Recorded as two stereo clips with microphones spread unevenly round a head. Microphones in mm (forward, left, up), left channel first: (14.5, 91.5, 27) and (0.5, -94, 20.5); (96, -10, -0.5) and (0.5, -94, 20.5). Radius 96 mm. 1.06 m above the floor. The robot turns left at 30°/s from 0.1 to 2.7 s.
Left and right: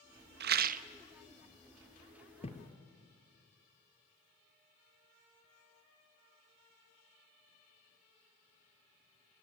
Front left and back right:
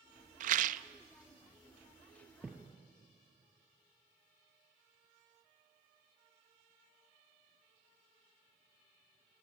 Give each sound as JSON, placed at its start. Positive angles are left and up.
{"t": 0.4, "sound": "a rattle", "azimuth_deg": -135, "distance_m": 0.6}
{"t": 2.4, "sound": "a thud", "azimuth_deg": 140, "distance_m": 2.0}